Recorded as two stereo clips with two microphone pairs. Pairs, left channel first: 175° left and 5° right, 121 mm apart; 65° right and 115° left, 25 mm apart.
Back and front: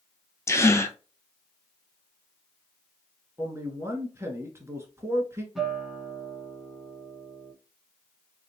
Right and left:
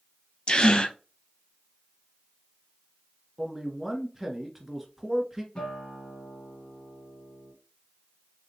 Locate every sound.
0.5 s a gasp: 115° right, 0.8 m
3.4 s a man speaking: 40° left, 1.5 m
5.5 s a guitar: 90° right, 2 m